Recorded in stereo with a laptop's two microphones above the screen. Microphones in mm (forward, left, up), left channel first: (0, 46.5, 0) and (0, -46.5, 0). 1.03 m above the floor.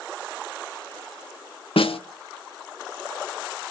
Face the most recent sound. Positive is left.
turn(degrees=85)